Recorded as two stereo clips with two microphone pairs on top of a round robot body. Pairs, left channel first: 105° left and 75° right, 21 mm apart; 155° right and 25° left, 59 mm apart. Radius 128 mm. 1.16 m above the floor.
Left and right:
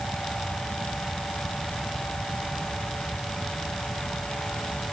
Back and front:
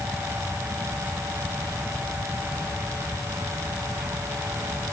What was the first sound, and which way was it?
Only background noise.